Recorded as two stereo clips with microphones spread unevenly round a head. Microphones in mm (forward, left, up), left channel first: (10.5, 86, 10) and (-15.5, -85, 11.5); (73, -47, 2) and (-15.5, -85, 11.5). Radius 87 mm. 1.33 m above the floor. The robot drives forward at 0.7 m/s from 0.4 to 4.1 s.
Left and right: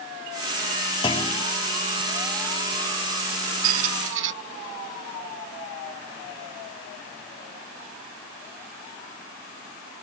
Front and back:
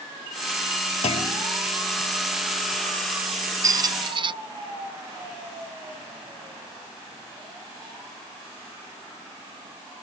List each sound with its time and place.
1.0 s a clunk: 20° left; by 1.5 s 25° left
3.6 s a squeak: 100° right; by 4.3 s 120° right